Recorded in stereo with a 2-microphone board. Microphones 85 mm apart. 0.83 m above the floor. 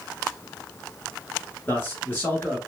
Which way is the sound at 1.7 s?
20° left (ahead or behind).